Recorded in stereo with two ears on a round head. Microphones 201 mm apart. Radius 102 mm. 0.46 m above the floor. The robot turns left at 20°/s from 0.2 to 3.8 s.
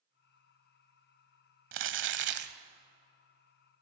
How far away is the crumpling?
About 1.2 m.